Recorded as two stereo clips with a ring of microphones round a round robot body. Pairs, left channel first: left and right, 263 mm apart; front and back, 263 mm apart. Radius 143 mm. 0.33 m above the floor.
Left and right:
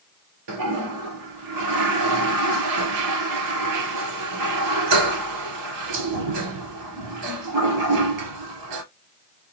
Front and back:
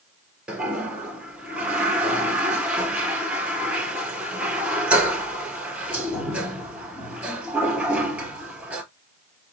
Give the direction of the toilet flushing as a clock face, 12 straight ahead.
3 o'clock.